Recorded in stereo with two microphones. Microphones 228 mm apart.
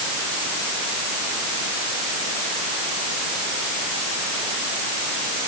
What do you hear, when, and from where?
Only background noise.